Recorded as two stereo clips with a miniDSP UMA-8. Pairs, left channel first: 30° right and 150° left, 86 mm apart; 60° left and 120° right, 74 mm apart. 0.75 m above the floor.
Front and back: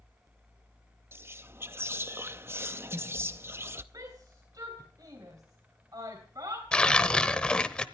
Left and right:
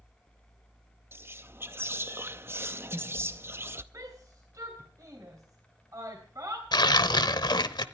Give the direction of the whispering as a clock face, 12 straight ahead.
5 o'clock.